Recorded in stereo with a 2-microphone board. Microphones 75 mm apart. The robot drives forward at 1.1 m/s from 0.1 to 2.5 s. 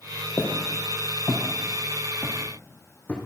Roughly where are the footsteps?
Left.